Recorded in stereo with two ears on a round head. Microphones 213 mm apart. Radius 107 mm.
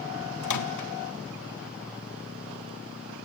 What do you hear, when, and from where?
0.4 s a microwave: 80° left, 1.4 m